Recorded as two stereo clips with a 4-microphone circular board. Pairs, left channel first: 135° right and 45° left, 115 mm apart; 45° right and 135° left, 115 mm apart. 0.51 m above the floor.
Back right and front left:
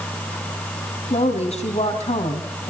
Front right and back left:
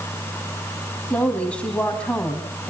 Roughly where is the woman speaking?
Behind right.